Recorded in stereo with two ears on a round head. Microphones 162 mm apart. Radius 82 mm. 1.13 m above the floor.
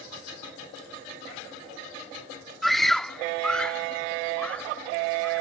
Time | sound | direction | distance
2.6 | a scream | centre (ahead or behind) | ?